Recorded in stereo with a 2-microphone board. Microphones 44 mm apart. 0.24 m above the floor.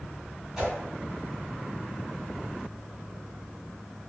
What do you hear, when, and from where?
0.6 s a whoosh: 10° right (ahead or behind), 1.3 m